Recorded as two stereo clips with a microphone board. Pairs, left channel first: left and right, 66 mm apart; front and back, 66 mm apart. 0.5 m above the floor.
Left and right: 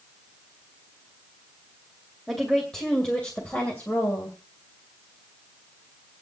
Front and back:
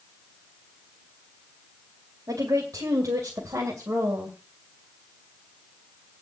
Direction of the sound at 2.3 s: Straight behind.